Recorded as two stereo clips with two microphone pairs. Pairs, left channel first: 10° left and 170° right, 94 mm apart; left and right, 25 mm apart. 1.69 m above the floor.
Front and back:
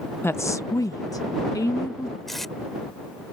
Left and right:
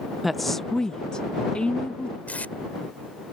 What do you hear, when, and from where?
0.2 s a woman speaking: 15° right; by 2.2 s 60° left
2.3 s tape being pulled: 95° left